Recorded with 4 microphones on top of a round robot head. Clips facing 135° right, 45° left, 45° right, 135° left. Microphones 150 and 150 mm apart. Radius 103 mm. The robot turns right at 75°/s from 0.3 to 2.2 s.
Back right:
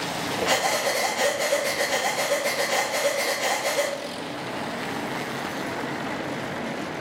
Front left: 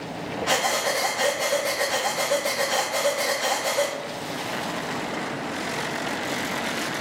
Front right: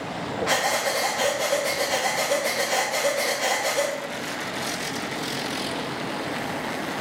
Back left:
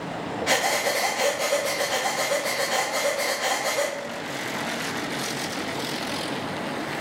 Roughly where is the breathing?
Behind left.